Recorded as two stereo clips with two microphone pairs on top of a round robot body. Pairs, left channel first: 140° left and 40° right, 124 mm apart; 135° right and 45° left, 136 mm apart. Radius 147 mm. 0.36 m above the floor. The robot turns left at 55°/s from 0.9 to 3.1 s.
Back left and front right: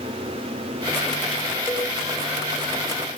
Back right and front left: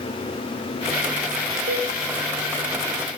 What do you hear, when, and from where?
1.7 s a cowbell: 40° left, 6.5 m; by 1.9 s 25° left, 6.5 m